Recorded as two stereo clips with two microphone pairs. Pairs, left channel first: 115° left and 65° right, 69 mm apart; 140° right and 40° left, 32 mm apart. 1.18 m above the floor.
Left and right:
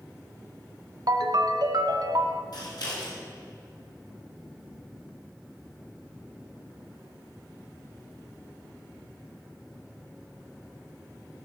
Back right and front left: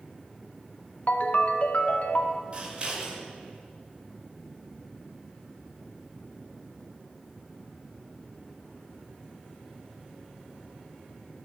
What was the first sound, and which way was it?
A ringtone, 95° right.